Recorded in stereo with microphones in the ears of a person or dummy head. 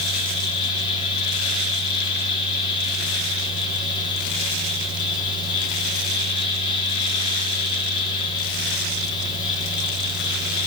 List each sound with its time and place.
0.0 s a fan: 30° left (ahead or behind), 2 m